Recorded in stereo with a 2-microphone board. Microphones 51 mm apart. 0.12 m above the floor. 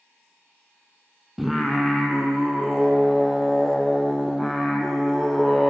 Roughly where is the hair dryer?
No hair dryer in this recording.